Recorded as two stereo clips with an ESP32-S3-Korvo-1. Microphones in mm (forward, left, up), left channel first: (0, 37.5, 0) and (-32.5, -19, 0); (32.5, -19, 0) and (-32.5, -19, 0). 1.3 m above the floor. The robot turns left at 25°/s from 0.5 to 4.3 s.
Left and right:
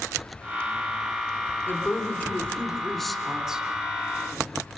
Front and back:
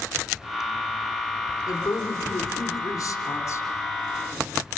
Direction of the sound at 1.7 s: 10° left.